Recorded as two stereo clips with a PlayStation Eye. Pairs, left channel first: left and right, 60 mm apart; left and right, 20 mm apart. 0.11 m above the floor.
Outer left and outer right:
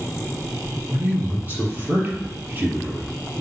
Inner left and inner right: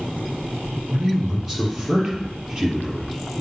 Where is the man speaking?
30° right (ahead or behind), 3 m.